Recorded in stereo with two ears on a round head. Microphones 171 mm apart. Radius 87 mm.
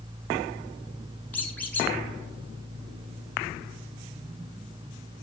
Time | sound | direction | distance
1.3 | a squeak | 10° left (ahead or behind) | 2 m